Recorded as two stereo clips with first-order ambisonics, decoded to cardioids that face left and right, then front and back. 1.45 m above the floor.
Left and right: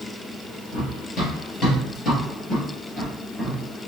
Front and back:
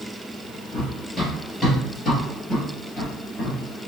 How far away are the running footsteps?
About 1.7 m.